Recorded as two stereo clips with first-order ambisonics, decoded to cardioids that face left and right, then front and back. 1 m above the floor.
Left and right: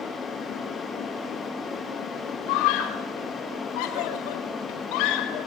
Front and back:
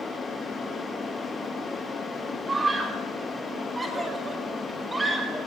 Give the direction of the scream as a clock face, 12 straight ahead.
9 o'clock.